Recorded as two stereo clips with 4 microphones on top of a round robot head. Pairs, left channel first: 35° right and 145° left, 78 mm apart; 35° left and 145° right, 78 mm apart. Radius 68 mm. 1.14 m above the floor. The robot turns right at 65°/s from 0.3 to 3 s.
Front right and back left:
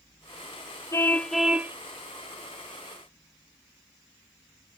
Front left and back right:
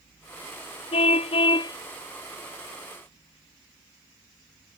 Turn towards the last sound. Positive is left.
turn(degrees=160)